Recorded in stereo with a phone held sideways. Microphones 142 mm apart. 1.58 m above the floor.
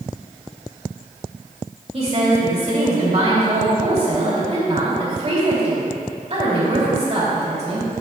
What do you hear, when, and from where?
1.9 s a woman speaking: 45° right (ahead or behind), 3 m